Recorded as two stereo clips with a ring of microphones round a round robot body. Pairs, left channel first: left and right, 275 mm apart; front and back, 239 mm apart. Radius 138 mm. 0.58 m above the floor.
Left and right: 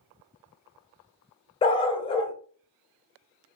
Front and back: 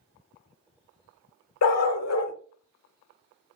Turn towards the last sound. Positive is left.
turn(degrees=15)